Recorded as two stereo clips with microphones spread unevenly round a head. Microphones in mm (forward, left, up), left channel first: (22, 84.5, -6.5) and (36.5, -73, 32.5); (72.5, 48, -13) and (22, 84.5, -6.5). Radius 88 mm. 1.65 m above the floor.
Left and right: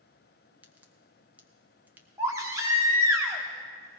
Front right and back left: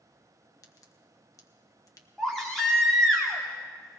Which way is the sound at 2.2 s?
130° right.